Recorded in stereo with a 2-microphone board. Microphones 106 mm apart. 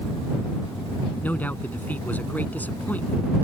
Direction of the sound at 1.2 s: 15° left (ahead or behind).